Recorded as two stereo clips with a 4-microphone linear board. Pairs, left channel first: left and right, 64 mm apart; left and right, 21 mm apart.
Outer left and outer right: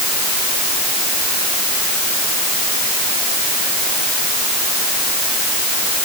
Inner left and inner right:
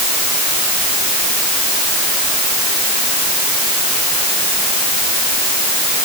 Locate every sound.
Only background noise.